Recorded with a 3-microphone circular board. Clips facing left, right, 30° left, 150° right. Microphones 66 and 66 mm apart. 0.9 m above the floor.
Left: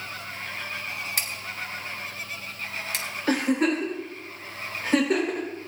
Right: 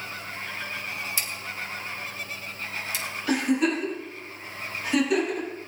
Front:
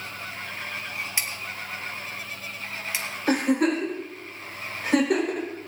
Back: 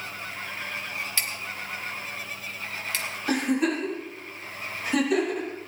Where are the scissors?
100° left, 1.4 m.